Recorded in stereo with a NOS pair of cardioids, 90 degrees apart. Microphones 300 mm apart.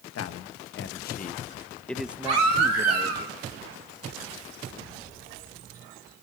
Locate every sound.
0.1 s a man speaking: 55° left, 1.3 m; by 3.2 s 35° right, 1.3 m
2.2 s a baby crying: 65° right, 4.5 m